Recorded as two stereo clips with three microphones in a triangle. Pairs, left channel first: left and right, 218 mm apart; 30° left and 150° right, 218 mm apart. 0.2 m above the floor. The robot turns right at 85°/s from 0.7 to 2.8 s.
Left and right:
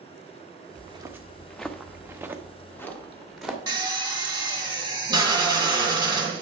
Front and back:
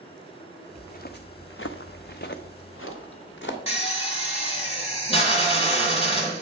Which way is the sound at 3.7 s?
25° right.